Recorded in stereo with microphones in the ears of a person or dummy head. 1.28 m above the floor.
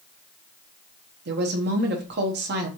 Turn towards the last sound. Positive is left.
turn(degrees=-55)  # may be behind; listen again after turning